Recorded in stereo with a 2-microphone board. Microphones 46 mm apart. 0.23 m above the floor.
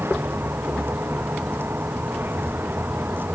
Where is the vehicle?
55° right (ahead or behind); by 3.4 s 50° right (ahead or behind).